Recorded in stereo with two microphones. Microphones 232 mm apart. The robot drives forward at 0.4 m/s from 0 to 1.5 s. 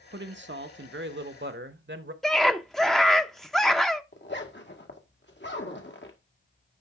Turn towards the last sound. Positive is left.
turn(degrees=55)  # may be behind; listen again after turning